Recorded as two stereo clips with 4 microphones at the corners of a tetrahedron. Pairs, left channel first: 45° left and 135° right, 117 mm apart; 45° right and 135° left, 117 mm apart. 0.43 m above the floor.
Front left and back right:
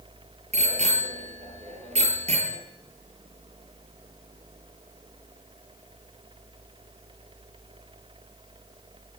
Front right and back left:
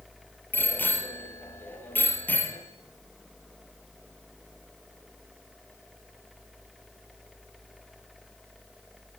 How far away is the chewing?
No chewing in this recording.